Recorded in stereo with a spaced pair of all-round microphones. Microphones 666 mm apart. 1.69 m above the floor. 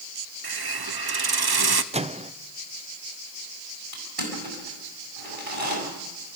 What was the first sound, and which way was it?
A hiss, 35° right (ahead or behind).